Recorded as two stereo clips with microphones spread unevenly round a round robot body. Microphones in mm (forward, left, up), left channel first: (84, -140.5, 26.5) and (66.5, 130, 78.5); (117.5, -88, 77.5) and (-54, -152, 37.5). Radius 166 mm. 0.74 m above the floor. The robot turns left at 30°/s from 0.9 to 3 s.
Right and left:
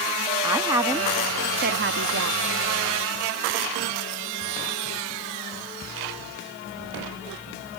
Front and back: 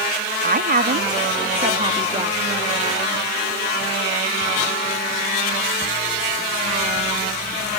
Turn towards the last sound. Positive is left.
turn(degrees=115)